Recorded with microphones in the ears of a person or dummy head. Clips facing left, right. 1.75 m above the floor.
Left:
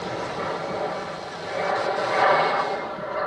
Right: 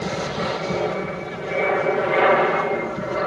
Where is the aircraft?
40° right (ahead or behind).